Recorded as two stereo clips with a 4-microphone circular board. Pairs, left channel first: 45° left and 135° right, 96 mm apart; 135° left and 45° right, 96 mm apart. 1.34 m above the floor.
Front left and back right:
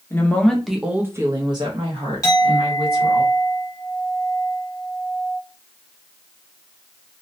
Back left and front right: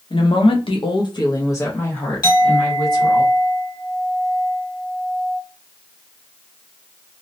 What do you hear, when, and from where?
0.1 s a woman speaking: 110° left, 0.7 m; by 3.2 s 135° right, 1.3 m
2.2 s a clink: 95° left, 1.1 m